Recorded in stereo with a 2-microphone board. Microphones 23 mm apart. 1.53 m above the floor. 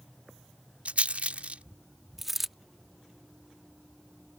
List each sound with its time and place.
0.8 s a rattle: 75° right (ahead or behind)
2.2 s a dropped coin: 5° right (ahead or behind)